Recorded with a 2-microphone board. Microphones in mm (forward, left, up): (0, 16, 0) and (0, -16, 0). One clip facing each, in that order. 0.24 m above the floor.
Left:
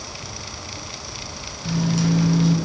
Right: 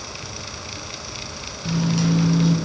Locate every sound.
1.6 s a microwave: 10° right (ahead or behind), 1.2 m